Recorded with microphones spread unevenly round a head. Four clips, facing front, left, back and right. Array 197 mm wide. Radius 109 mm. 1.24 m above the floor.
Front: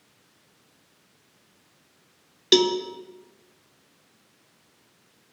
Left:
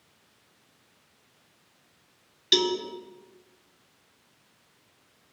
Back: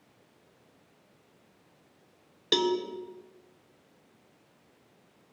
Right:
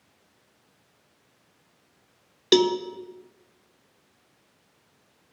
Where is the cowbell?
70° right, 0.9 m.